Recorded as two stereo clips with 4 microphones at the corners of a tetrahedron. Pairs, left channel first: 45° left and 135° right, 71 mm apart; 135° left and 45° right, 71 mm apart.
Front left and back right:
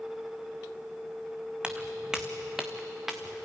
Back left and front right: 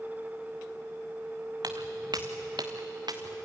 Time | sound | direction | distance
1.6 | footsteps | 60° right | 1.3 m